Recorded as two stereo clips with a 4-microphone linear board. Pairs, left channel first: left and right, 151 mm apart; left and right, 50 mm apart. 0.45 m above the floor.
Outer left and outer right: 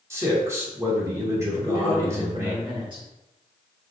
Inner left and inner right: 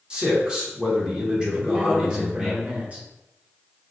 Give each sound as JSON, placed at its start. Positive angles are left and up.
{"t": 0.1, "sound": "a man speaking", "side_deg": -20, "distance_m": 0.9}
{"t": 1.5, "sound": "a man speaking", "side_deg": -30, "distance_m": 1.2}